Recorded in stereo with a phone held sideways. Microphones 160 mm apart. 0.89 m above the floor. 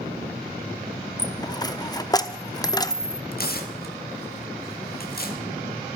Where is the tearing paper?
65° left (ahead or behind), 1.7 m.